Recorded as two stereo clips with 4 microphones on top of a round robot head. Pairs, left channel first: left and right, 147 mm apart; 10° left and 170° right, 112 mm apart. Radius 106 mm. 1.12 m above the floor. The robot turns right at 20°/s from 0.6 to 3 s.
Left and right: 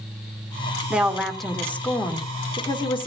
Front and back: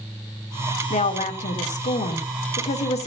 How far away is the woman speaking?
About 2 m.